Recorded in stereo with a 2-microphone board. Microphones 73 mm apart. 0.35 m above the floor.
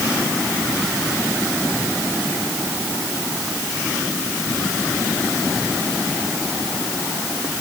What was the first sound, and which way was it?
Only background noise.